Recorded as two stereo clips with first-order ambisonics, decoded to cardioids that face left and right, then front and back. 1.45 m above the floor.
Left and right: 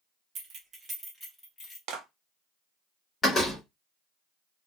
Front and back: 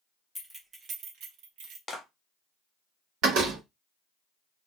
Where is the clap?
75° right, 0.8 m.